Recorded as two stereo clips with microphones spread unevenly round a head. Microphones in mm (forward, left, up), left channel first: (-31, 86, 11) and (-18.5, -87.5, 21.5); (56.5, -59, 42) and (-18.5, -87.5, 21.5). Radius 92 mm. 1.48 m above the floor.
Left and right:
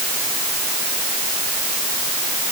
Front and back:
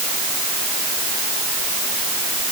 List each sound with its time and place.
Only background noise.